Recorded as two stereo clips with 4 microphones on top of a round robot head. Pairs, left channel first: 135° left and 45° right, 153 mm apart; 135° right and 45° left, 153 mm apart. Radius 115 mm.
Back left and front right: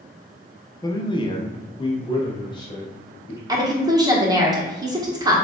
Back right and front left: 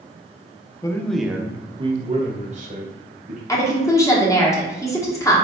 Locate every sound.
0.8 s a man speaking: straight behind, 0.8 m; by 3.4 s 75° left, 2 m
3.5 s a woman speaking: 85° right, 1.4 m